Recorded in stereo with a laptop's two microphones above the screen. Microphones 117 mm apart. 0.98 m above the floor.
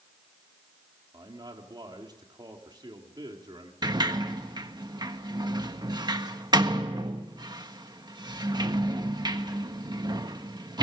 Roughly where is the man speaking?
Right.